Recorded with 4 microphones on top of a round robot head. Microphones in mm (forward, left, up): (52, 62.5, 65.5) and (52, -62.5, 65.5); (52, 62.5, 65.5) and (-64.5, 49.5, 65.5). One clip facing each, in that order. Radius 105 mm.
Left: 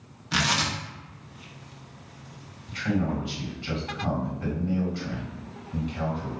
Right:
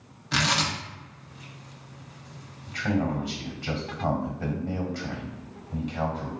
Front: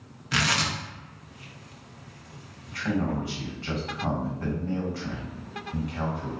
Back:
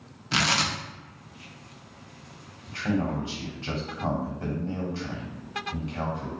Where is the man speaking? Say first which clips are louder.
Even, even; 115° right, 1.5 m.